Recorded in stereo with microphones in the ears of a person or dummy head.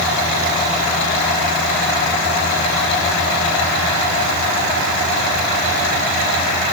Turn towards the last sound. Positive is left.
No sound to turn to.